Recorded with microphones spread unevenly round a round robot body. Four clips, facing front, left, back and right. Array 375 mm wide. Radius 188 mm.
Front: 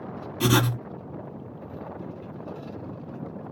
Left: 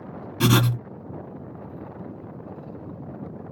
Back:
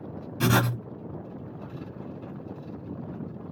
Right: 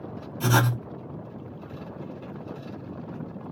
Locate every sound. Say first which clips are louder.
0.4 s writing: left 3 dB, front 1 dB; 105° left, 1.1 m